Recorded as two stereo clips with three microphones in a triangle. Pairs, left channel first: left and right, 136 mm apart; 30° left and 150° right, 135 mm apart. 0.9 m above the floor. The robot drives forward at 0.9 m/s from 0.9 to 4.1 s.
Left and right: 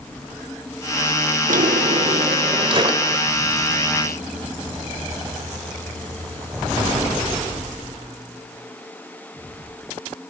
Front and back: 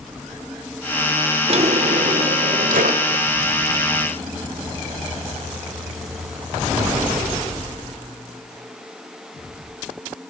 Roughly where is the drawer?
Right.